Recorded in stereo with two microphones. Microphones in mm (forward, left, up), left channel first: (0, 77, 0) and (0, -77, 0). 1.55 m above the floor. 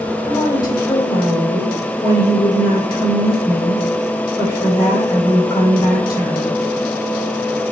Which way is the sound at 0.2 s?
25° left (ahead or behind).